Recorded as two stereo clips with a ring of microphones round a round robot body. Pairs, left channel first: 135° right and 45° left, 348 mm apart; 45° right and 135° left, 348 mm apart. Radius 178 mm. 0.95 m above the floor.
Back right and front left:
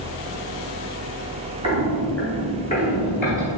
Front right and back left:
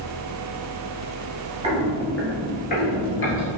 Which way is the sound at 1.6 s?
95° left.